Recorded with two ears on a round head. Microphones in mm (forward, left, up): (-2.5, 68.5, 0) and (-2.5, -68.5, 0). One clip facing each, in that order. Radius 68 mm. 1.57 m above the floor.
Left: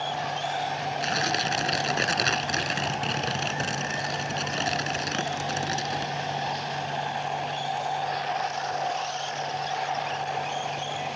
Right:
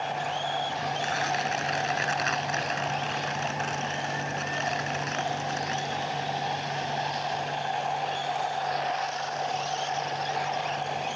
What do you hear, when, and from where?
1.0 s tearing paper: 45° left (ahead or behind)